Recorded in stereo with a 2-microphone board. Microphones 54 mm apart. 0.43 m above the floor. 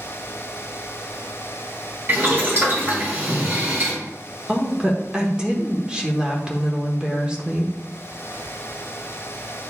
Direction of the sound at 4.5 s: 15° right (ahead or behind).